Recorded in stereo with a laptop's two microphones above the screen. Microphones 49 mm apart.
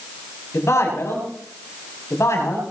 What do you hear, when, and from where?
0.5 s a man speaking: 70° left (ahead or behind), 6 m